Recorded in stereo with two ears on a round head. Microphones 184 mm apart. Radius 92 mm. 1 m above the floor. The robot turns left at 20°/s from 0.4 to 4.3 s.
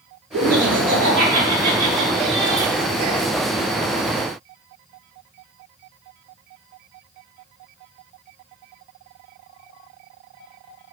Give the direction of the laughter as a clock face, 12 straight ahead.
4 o'clock.